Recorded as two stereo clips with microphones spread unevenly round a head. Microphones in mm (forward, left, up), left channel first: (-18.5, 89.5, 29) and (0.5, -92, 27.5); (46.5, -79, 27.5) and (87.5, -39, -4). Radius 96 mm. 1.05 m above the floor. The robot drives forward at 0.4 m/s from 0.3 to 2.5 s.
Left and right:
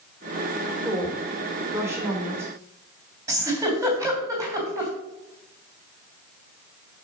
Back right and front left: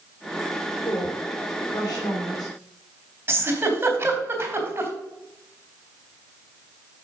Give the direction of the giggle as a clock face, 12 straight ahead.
12 o'clock.